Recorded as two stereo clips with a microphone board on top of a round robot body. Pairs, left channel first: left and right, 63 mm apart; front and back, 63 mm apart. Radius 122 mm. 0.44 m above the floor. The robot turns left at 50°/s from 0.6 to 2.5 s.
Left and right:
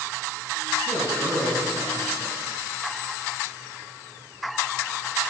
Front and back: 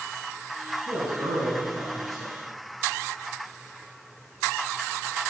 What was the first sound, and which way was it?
A man speaking, 145° right.